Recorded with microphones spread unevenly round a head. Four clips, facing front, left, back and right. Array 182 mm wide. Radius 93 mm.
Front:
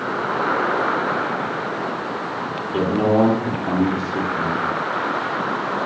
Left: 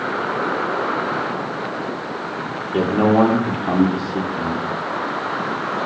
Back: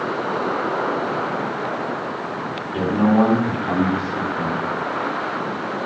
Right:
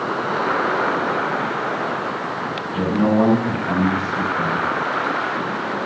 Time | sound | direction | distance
2.7 | a man speaking | 60° left | 3 m